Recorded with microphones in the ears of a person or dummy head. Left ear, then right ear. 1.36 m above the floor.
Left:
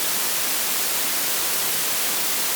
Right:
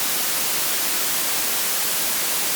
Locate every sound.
Only background noise.